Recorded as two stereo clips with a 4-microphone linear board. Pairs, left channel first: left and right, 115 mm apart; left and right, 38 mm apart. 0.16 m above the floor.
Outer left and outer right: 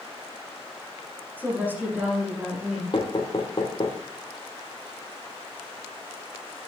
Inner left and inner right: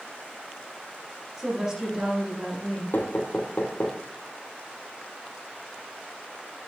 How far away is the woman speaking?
About 8 m.